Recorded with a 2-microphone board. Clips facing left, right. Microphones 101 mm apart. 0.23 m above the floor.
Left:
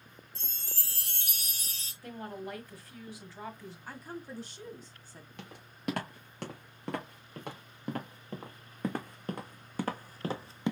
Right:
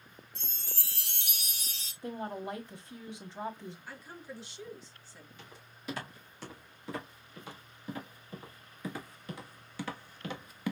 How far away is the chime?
About 2.5 m.